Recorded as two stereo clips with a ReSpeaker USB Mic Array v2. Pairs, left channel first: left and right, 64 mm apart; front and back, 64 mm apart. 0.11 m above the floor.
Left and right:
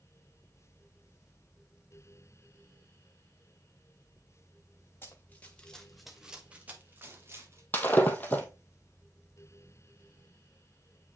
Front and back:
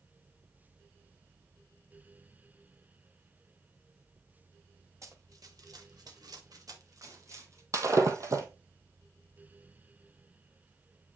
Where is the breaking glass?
150° left, 1.7 m.